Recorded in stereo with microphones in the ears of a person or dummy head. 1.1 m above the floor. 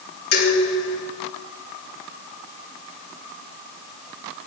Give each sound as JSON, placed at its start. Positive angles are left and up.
{"t": 0.3, "sound": "dishes clattering", "side_deg": 75, "distance_m": 10.0}